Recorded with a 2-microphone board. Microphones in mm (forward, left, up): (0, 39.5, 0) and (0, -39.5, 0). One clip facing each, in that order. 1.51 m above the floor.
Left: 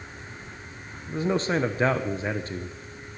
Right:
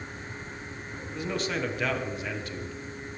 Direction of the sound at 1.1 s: 30° left (ahead or behind).